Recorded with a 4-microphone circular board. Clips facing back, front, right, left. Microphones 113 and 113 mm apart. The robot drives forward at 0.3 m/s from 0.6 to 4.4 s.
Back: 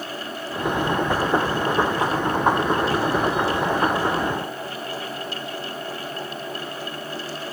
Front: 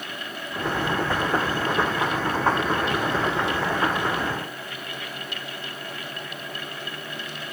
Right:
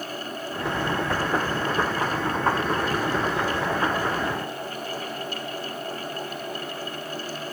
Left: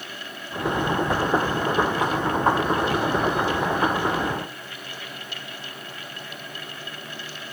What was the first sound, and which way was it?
Only background noise.